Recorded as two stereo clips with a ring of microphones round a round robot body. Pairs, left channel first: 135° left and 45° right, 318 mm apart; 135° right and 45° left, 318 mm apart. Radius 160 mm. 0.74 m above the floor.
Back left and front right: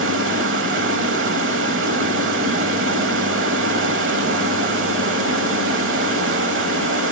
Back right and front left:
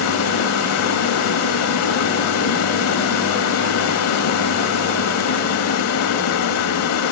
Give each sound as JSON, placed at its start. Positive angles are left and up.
{"t": 0.0, "sound": "running water", "azimuth_deg": -95, "distance_m": 0.9}